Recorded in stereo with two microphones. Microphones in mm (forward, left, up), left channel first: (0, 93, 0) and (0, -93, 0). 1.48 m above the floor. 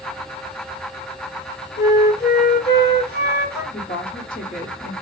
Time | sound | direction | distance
1.8 | a flute | 60° left (ahead or behind) | 1.0 m
3.7 | a woman speaking | 50° left (ahead or behind) | 0.9 m